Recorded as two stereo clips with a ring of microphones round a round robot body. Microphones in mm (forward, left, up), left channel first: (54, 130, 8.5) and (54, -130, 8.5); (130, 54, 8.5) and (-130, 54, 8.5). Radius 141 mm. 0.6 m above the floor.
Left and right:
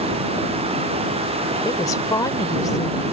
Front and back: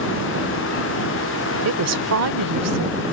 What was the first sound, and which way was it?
A woman speaking, 165° left.